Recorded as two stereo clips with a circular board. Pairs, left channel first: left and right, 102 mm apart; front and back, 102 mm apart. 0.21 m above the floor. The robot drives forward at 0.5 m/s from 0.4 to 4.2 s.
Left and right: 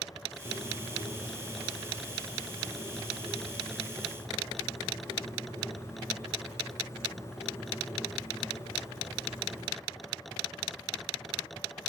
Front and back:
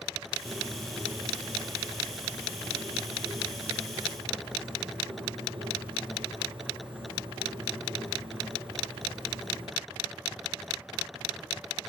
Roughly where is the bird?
Behind left.